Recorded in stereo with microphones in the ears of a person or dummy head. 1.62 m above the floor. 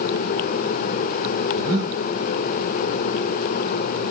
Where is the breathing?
40° right (ahead or behind), 1.7 m.